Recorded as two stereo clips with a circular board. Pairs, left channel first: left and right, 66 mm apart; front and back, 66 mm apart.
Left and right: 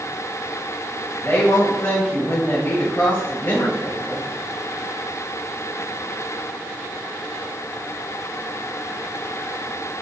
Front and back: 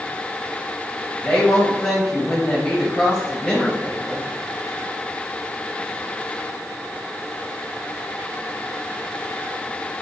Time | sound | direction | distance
1.2 | a woman speaking | 60° left | 0.9 m